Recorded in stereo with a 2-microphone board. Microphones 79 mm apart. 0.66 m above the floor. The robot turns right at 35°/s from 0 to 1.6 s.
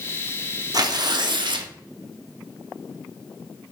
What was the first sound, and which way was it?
Tearing paper, 125° right.